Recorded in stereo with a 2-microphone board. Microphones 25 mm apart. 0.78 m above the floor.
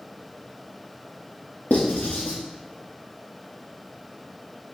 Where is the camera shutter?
No camera shutter in this recording.